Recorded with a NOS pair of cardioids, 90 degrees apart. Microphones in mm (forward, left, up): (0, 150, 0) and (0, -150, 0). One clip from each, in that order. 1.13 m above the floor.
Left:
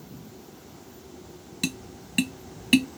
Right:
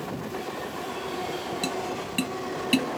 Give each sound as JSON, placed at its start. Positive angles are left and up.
{"t": 1.6, "sound": "tapping", "azimuth_deg": 25}